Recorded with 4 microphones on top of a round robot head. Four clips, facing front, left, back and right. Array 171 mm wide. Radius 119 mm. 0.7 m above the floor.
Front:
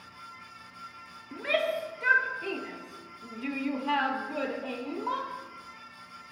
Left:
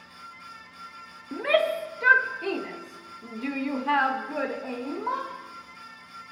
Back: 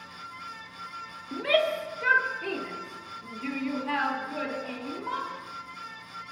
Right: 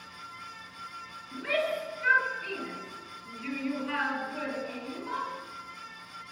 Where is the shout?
110° left, 3 m; by 5.3 s 55° left, 3.5 m.